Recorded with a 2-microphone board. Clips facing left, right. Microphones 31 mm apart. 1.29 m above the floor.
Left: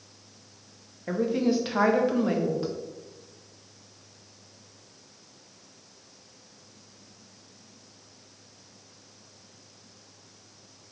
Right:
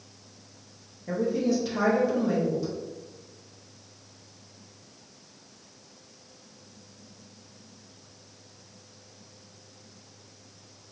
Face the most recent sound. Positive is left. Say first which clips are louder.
# left 1 dB
turn(degrees=40)  # may be behind; listen again after turning